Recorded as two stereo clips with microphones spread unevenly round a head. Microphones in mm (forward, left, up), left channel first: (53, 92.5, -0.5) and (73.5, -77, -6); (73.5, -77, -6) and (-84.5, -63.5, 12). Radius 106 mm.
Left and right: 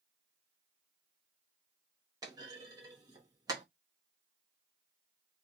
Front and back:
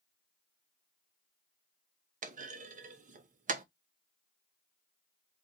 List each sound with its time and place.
2.2 s a clunk: 150° right, 0.8 m